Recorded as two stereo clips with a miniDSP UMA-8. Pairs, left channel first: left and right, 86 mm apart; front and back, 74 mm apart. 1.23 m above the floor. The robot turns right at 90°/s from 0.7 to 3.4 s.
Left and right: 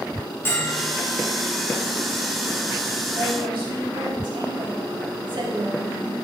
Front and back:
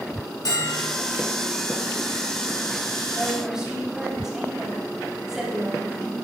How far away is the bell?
About 3 m.